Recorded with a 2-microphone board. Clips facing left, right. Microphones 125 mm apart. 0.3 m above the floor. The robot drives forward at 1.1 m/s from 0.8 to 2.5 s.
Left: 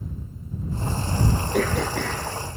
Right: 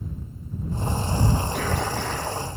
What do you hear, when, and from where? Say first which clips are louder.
1.5 s throat clearing: left 3 dB; 60° left (ahead or behind), 3 m; by 2.3 s 75° left (ahead or behind), 2.5 m